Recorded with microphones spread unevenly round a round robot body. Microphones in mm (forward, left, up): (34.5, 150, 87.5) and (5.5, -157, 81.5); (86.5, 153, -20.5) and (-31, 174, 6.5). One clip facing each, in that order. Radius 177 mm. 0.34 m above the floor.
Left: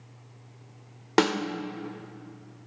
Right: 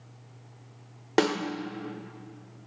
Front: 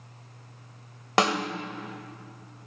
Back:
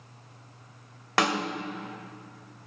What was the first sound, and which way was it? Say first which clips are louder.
A snare drum: left 1 dB, front 2 dB; 20° left.